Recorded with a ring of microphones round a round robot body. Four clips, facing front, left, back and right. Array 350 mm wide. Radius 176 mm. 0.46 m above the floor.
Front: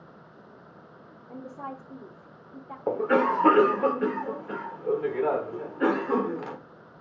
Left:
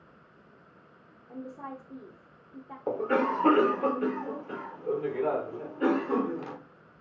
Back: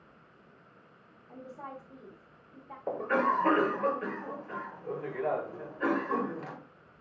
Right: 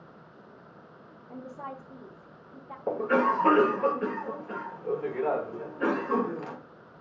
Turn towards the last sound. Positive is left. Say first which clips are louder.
# right 2 dB, front 5 dB
turn(degrees=5)